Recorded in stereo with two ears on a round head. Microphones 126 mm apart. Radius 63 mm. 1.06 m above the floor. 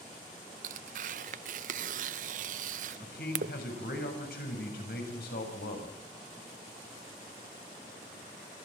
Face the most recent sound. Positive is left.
turn(degrees=75)  # may be behind; listen again after turning